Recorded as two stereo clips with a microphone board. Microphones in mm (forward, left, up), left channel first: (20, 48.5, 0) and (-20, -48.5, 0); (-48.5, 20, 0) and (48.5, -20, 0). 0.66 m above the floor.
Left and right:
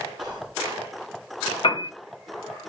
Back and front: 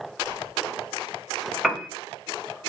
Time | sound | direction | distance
0.2 | whispering | 105° right | 1.4 m
1.6 | a piano | 65° left | 0.5 m